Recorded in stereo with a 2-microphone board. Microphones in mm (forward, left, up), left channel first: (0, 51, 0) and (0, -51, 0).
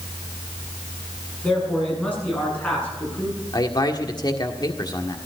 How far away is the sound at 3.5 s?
About 1.7 m.